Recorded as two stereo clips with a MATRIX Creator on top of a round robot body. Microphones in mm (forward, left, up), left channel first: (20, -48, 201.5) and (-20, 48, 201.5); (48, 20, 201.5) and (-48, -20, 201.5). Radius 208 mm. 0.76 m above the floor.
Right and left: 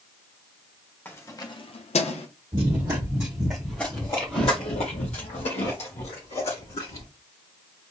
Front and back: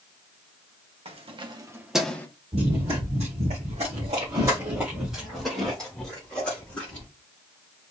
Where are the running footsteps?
165° left, 1.6 m; by 7.1 s 55° right, 2.5 m.